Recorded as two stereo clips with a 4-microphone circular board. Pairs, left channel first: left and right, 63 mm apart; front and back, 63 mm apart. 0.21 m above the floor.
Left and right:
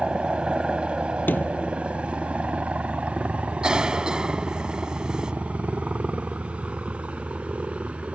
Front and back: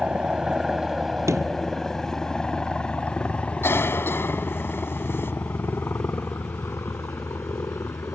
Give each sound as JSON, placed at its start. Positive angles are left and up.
{"t": 0.0, "sound": "a helicopter", "azimuth_deg": -140}
{"t": 1.3, "sound": "a sliding door", "azimuth_deg": 145}
{"t": 3.6, "sound": "a cough", "azimuth_deg": -20}